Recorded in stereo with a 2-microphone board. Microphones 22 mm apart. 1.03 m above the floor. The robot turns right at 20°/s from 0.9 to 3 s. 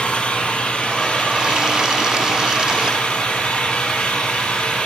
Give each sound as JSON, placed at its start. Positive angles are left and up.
{"t": 0.0, "sound": "an engine running", "azimuth_deg": 65, "distance_m": 9.0}